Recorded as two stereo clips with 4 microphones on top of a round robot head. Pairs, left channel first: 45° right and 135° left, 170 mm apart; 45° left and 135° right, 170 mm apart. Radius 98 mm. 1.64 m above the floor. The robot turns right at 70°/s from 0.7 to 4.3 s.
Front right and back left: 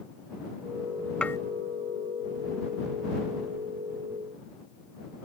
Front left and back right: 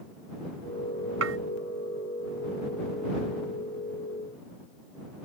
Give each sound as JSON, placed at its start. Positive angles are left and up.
{"t": 1.2, "sound": "dishes clattering", "azimuth_deg": -130}